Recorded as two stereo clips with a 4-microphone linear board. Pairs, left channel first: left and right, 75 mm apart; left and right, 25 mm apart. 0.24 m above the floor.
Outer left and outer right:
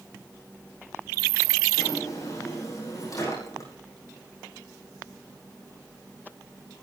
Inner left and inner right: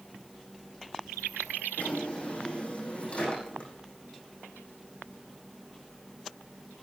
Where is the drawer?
50° left (ahead or behind), 8 m.